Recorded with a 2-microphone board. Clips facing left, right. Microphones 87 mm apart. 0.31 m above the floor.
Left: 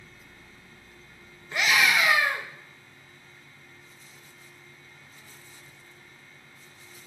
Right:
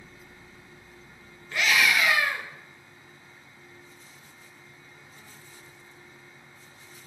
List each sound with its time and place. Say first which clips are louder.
1.5 s a scream: left 1 dB; 20° left (ahead or behind), 1.0 m